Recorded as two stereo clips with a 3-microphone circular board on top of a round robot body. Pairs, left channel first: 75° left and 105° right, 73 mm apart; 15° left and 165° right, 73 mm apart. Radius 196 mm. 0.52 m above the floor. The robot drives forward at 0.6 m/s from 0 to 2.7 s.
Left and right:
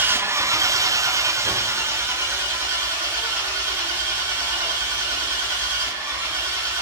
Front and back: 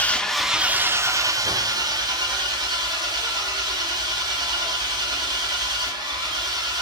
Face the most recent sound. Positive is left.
turn(degrees=-165)